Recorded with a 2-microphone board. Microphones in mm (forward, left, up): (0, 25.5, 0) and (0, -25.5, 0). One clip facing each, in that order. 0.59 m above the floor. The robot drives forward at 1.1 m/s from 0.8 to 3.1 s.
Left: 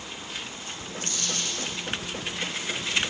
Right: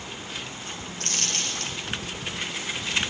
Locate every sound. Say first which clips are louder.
1.0 s a dropped coin: right 2 dB; 80° right, 2.5 m; by 1.8 s 70° right (ahead or behind), 2.5 m